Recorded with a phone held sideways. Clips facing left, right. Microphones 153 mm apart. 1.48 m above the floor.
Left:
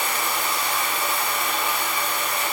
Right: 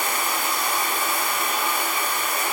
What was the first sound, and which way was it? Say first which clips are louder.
Running water: even; 50° right (ahead or behind).